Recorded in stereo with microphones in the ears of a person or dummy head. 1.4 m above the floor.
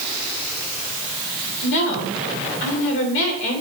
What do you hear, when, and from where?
1.6 s a woman speaking: 65° left (ahead or behind), 3 m